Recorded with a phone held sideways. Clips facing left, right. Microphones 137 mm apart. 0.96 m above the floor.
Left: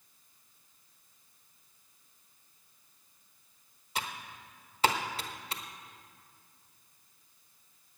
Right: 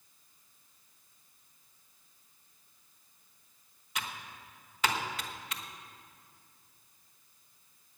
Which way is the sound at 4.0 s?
35° left (ahead or behind).